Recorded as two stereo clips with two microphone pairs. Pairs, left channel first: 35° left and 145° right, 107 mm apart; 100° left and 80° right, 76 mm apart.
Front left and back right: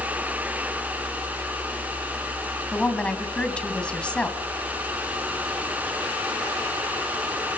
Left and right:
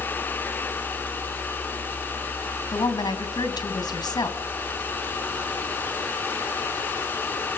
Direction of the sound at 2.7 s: 115° left.